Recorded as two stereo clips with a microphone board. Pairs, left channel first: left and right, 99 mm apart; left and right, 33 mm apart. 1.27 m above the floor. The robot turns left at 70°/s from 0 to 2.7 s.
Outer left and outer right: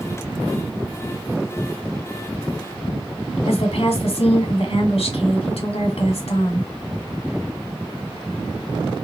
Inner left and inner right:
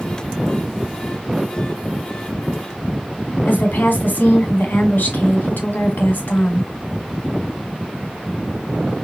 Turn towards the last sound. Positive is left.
turn(degrees=85)